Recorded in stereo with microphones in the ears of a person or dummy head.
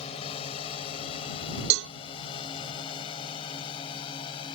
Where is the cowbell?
65° right (ahead or behind).